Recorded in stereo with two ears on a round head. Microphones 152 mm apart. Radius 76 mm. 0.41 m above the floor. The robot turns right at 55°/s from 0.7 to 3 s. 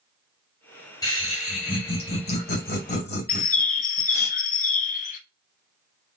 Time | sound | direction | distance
1.0 | laughter | 25° left | 2.5 m
3.3 | a bird | 50° left (ahead or behind) | 0.7 m